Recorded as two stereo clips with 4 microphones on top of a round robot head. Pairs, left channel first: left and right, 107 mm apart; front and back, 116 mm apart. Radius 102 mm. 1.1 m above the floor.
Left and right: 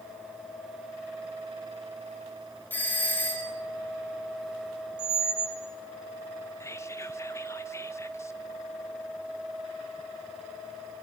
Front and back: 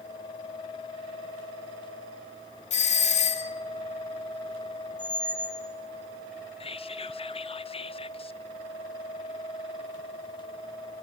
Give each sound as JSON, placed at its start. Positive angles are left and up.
{"t": 2.7, "sound": "a doorbell", "azimuth_deg": 15, "distance_m": 3.5}
{"t": 5.0, "sound": "a squeak", "azimuth_deg": -80, "distance_m": 2.0}
{"t": 6.6, "sound": "whispering", "azimuth_deg": 25, "distance_m": 1.4}